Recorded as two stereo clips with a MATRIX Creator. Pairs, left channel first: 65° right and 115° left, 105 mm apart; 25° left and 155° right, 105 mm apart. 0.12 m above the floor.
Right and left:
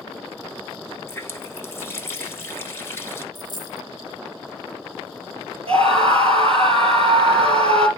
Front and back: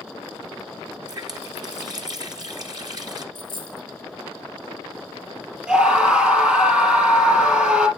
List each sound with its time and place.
1.1 s a running tap: 125° right, 1.4 m
3.4 s a dropped coin: 20° right, 0.8 m
5.7 s a scream: 125° left, 3.5 m